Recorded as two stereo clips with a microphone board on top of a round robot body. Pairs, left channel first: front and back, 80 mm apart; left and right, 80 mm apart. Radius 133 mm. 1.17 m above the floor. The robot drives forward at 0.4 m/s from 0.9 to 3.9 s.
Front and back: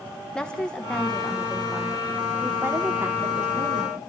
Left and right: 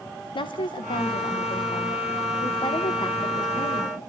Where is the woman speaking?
80° left, 1.2 m; by 4.0 s 130° left, 1.5 m.